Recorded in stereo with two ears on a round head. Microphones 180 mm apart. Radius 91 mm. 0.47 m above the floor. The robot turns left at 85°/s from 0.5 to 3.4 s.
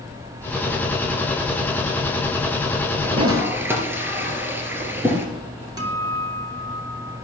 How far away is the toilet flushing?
About 2.5 m.